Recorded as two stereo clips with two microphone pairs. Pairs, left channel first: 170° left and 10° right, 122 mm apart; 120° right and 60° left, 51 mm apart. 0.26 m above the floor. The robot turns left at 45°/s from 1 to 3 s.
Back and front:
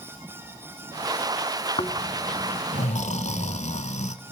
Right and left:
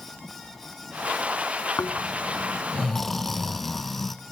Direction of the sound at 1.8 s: 155° right.